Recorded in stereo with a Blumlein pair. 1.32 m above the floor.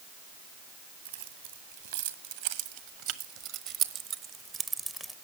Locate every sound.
1.1 s keys jangling: 60° right, 2.5 m; by 5.2 s straight ahead, 0.8 m